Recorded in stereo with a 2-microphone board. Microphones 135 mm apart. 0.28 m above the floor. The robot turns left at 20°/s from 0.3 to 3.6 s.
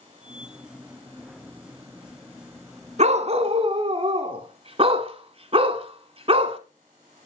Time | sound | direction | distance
3.0 | a dog barking | 55° right (ahead or behind) | 0.9 m